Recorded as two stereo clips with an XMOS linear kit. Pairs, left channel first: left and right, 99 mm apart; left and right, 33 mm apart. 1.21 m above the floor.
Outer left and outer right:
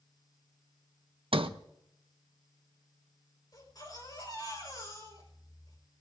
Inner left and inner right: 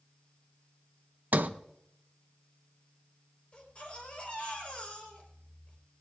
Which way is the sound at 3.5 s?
40° left (ahead or behind).